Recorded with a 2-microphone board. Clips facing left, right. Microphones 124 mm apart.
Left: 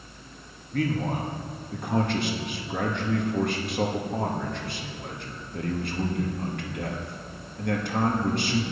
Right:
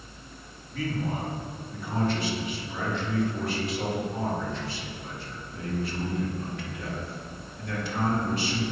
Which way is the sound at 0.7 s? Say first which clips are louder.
Left 4 dB; 60° left (ahead or behind).